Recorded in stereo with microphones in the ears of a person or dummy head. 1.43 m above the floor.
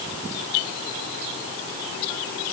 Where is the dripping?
I don't hear dripping.